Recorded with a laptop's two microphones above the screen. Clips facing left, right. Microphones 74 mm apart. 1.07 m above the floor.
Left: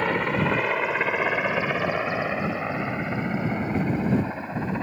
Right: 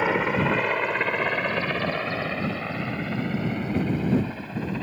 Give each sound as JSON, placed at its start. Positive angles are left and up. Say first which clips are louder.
{"t": 0.0, "sound": "a helicopter", "louder": "right 1 dB", "side_deg": -5}